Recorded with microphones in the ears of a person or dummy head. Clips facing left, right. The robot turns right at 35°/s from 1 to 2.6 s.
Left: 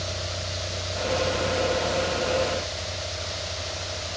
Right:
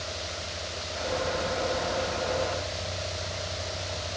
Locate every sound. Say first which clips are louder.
0.0 s a vehicle: left 4 dB; 125° left; by 4.2 s straight behind